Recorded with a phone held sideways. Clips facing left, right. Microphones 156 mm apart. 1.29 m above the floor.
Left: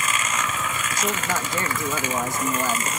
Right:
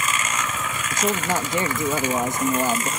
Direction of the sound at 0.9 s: 20° right (ahead or behind).